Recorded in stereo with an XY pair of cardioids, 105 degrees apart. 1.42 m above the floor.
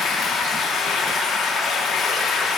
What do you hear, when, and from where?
0.0 s running water: 65° left, 3 m